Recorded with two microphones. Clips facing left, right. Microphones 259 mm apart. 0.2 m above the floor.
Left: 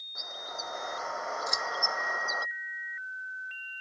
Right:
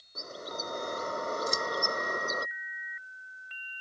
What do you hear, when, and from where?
0.1 s a bird: 40° right (ahead or behind)
1.5 s scissors: 35° right (ahead or behind)